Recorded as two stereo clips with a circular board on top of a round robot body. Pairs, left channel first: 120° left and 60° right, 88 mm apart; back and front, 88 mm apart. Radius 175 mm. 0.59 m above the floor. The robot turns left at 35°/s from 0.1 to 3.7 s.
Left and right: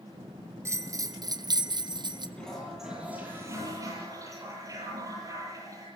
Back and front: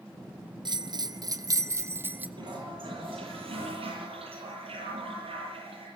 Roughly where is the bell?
Ahead.